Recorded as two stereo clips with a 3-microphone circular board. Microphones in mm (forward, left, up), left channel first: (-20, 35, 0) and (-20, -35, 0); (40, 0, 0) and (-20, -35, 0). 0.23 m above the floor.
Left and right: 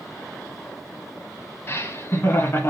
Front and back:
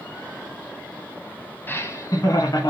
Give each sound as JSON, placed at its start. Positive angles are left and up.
{"t": 1.7, "sound": "laughter", "azimuth_deg": 70, "distance_m": 1.2}